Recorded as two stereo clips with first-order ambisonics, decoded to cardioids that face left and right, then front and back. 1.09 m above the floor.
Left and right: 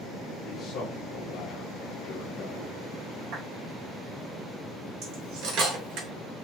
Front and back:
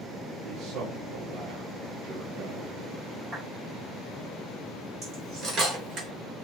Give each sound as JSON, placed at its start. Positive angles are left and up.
{"t": 0.5, "sound": "a man speaking", "azimuth_deg": 150, "distance_m": 1.9}
{"t": 3.3, "sound": "a clap", "azimuth_deg": -120, "distance_m": 3.5}
{"t": 5.0, "sound": "cutlery clinking", "azimuth_deg": -125, "distance_m": 3.0}